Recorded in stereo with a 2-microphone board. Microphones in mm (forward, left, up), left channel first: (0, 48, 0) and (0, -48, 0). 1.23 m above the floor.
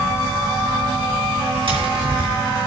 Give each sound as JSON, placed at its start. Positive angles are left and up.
{"t": 1.7, "sound": "tapping", "side_deg": -70, "distance_m": 2.5}